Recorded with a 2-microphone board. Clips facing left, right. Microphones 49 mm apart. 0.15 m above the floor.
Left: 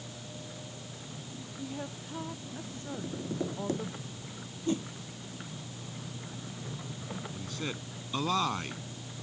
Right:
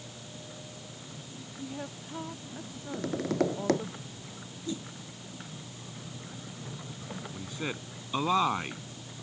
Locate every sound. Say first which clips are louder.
1.6 s a woman speaking: even; centre (ahead or behind)
2.9 s tapping: right 7 dB; 75° right (ahead or behind)
4.7 s a whoosh: left 6 dB; 45° left (ahead or behind)
7.3 s a man speaking: right 4 dB; 20° right (ahead or behind)